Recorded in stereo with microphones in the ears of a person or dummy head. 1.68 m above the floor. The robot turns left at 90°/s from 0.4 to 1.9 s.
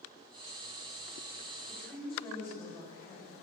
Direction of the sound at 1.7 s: 10° left (ahead or behind).